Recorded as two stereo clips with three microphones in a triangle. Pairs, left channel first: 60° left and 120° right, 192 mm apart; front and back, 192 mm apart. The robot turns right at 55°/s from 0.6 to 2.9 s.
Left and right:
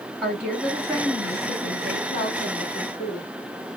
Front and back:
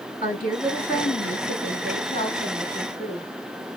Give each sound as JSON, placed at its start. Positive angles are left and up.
{"t": 0.2, "sound": "a woman speaking", "azimuth_deg": -20, "distance_m": 1.8}